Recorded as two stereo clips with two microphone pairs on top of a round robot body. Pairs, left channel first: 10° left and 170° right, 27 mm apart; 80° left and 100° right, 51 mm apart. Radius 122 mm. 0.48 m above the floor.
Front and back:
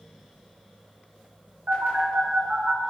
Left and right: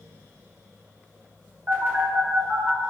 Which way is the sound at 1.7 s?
150° right.